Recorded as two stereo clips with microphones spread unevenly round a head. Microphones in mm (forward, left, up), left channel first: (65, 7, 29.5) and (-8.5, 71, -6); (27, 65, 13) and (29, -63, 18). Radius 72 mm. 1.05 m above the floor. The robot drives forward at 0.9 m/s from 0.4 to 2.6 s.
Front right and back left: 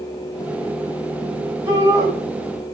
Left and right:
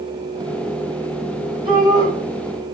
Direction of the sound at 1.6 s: 150° right.